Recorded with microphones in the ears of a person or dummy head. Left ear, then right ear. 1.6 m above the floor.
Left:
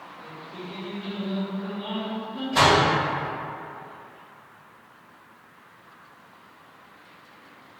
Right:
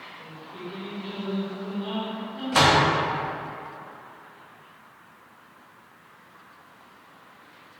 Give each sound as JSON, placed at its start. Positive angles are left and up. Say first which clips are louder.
{"t": 0.2, "sound": "singing", "louder": "left 1 dB", "side_deg": 80, "distance_m": 1.4}
{"t": 2.5, "sound": "a door slam", "louder": "even", "side_deg": -50, "distance_m": 0.9}